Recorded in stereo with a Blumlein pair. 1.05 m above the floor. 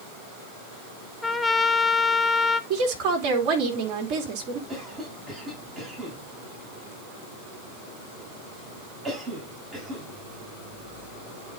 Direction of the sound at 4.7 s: 10° right.